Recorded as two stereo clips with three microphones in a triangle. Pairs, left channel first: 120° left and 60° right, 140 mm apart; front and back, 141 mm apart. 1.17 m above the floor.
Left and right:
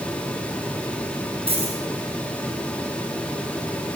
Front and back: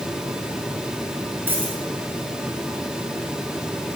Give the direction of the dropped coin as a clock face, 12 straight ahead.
3 o'clock.